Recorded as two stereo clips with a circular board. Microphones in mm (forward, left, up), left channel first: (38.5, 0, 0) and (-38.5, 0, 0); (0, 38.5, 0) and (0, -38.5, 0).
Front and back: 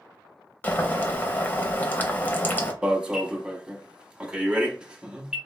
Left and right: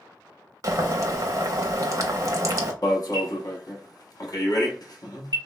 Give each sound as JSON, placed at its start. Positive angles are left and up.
{"t": 0.6, "sound": "boiling", "azimuth_deg": -60, "distance_m": 0.5}
{"t": 2.8, "sound": "an alarm", "azimuth_deg": 105, "distance_m": 0.6}